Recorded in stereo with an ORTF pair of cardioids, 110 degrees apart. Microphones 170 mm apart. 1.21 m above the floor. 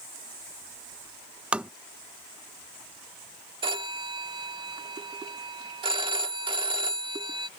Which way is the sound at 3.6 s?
30° right.